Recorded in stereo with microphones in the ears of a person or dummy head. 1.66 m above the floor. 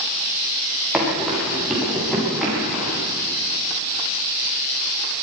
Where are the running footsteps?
5° right (ahead or behind), 8 m; by 3.0 s 5° left (ahead or behind), 10 m.